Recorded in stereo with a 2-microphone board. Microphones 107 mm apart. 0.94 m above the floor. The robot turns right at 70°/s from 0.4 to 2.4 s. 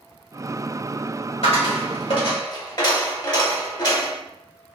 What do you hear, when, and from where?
1.4 s a dropped coin: 70° left, 1.6 m; by 4.2 s 135° left, 1.6 m